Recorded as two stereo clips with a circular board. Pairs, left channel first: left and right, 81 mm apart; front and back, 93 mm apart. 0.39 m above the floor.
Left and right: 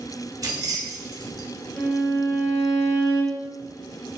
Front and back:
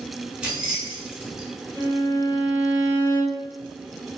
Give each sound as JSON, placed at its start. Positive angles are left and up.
{"t": 0.4, "sound": "keys jangling", "azimuth_deg": -105, "distance_m": 0.6}
{"t": 1.8, "sound": "a violin", "azimuth_deg": 120, "distance_m": 1.4}